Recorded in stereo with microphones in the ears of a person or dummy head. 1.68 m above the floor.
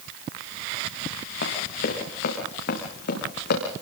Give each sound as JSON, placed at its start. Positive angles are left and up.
{"t": 1.4, "sound": "running footsteps", "side_deg": 55, "distance_m": 7.5}